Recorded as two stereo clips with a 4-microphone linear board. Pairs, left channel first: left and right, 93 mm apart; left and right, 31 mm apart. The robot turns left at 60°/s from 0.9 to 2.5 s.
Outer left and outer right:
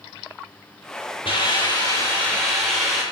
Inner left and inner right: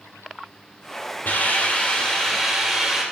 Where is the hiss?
75° left, 3.5 m; by 3.0 s straight ahead, 3.5 m.